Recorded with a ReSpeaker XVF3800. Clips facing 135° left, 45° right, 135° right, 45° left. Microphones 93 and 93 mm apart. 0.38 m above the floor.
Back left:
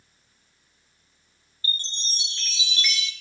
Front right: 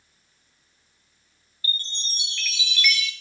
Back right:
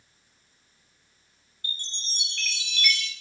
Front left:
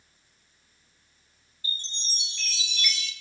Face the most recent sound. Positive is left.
turn(degrees=-165)